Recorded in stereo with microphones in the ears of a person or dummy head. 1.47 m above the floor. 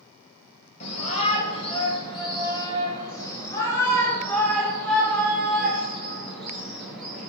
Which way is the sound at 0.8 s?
40° left (ahead or behind).